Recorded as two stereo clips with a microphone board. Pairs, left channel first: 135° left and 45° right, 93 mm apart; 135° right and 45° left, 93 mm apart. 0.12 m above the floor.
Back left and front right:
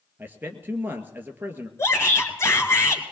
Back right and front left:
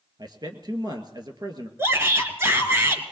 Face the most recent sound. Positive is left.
turn(degrees=95)